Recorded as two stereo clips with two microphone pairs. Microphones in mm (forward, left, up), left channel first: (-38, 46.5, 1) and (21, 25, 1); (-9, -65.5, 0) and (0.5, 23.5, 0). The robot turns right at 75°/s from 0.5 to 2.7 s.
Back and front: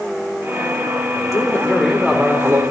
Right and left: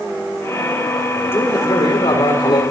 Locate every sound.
1.3 s a man speaking: 160° right, 4 m; by 2.6 s 65° right, 4 m